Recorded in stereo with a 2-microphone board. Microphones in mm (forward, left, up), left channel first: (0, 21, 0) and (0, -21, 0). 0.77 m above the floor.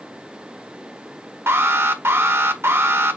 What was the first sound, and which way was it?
An alarm, 75° right (ahead or behind).